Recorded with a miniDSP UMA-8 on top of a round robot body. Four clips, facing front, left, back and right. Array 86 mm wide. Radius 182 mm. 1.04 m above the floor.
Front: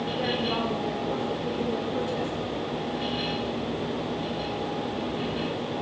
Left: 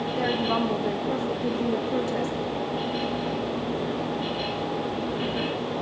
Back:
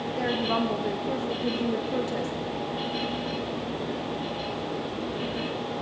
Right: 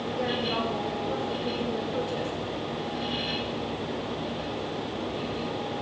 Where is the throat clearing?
I don't hear throat clearing.